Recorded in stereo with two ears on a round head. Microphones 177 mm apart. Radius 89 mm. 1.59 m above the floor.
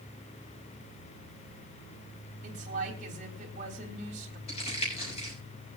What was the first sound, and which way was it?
A woman speaking, 40° right (ahead or behind).